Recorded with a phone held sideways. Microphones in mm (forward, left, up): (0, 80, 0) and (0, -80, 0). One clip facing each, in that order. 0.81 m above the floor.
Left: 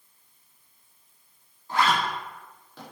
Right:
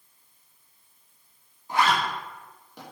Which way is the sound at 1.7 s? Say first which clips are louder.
Even; 15° right (ahead or behind).